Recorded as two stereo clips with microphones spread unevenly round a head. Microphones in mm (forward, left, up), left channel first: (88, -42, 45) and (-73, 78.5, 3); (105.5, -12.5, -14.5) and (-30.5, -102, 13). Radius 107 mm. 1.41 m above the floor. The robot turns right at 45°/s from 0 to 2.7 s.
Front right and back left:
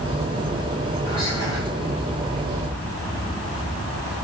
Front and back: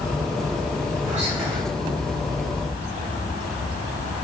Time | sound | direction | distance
1.1 | whispering | 155° right | 3 m